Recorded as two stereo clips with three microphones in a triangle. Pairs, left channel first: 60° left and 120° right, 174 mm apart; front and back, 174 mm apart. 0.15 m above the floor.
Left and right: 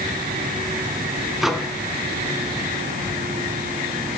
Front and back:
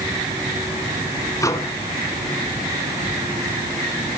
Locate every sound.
1.4 s a microwave: 35° right, 1.1 m